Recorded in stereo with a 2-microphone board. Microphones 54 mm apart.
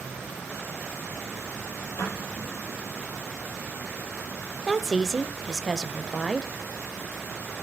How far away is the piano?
About 7.5 m.